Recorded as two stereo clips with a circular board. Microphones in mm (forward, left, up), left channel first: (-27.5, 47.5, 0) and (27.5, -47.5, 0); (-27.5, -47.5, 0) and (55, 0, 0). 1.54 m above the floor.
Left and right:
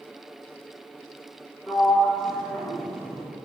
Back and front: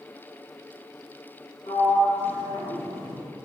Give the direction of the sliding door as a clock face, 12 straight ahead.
5 o'clock.